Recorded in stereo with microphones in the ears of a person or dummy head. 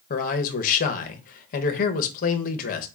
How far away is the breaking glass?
I don't hear breaking glass.